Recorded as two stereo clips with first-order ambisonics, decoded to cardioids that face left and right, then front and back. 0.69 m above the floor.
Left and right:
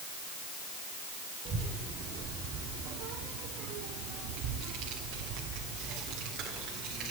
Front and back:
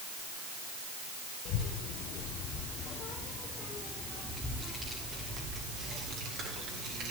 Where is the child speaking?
35° right, 1.8 m; by 7.1 s 140° right, 2 m.